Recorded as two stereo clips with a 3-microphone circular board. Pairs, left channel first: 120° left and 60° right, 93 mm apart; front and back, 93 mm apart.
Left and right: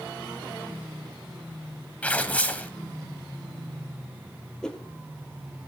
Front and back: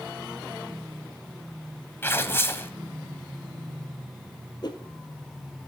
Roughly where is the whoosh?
Ahead left.